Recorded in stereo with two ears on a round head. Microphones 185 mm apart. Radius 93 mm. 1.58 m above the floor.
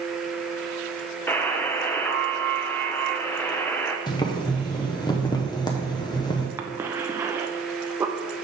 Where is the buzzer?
10° left (ahead or behind), 0.6 m.